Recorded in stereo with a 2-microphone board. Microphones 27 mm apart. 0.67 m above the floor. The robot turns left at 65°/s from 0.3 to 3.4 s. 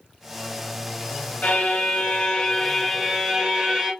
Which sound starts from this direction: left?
A violin, at 1.4 s.